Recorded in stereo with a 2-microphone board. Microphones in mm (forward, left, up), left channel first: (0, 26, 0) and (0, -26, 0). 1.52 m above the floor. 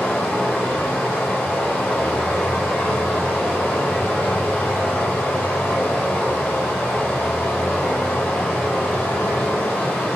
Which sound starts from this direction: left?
Running water, at 0.0 s.